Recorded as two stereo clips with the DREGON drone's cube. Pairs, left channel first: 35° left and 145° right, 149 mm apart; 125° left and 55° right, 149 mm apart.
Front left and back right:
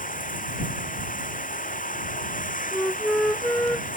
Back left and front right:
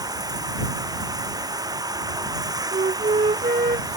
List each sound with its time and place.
0.0 s running water: 10° left
2.7 s a flute: 45° right